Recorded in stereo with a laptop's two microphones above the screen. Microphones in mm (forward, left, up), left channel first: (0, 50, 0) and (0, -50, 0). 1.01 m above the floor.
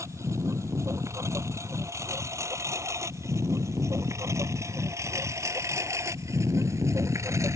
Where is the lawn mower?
30° right (ahead or behind).